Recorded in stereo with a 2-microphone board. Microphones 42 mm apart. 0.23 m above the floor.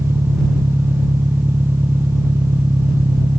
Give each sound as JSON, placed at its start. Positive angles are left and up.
{"t": 0.0, "sound": "an engine running", "side_deg": -85}